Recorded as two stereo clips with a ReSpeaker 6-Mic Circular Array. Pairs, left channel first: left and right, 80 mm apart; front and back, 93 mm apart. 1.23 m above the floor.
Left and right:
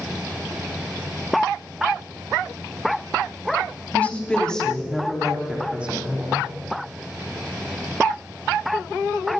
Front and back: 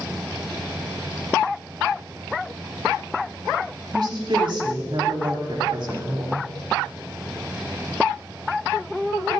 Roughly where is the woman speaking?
Behind left.